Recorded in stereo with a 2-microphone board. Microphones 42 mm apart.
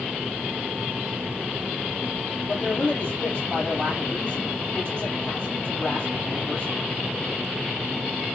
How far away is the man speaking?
About 6.5 m.